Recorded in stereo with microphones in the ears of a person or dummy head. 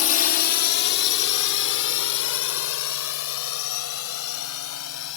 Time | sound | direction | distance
0.0 | a drone | 40° left (ahead or behind) | ?